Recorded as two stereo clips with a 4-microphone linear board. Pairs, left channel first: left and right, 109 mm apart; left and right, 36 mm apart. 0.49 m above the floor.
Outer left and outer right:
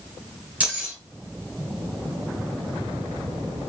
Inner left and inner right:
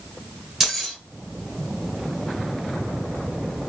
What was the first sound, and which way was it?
Keys jangling, 15° right (ahead or behind).